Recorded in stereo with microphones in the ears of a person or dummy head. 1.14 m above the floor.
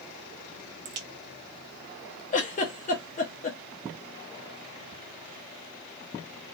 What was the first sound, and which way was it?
A crack, 35° right (ahead or behind).